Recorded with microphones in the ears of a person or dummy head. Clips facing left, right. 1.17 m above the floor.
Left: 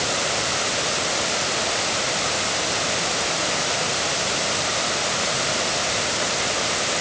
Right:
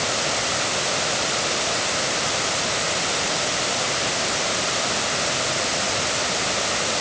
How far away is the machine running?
I don't hear a machine running.